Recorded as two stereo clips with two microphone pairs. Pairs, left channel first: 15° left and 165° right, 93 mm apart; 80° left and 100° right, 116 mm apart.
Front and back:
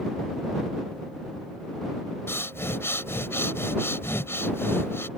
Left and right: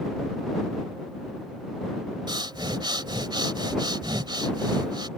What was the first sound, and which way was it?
Breathing, 50° right.